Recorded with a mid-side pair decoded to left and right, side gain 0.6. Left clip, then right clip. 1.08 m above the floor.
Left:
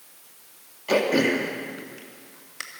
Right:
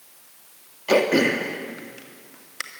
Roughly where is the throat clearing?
Ahead.